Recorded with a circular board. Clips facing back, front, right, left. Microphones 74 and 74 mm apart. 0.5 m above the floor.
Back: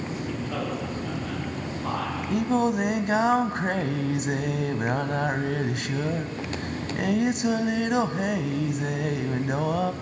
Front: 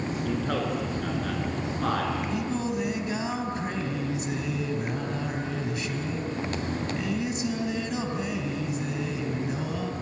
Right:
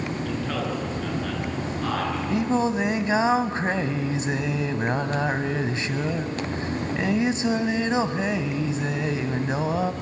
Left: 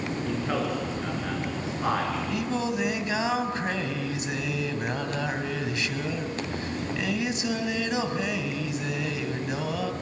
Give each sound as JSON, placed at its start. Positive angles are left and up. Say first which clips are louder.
{"t": 0.2, "sound": "a man speaking", "louder": "front 3 dB, left 2 dB", "azimuth_deg": 15, "distance_m": 9.0}
{"t": 2.3, "sound": "singing", "louder": "back 6 dB, right 5 dB", "azimuth_deg": -150, "distance_m": 1.2}